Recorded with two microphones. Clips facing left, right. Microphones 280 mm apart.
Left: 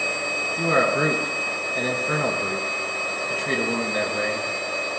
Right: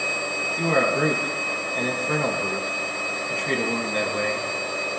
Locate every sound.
0.6 s a man speaking: 5° left (ahead or behind), 1.7 m